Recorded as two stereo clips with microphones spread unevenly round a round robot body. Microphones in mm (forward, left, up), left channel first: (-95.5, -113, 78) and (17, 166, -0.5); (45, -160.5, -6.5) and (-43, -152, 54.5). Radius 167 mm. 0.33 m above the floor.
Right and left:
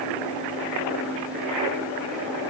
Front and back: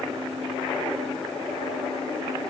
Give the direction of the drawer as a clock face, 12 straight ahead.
No drawer in this recording.